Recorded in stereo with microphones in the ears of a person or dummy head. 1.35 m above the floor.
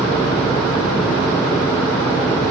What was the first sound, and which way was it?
Only background noise.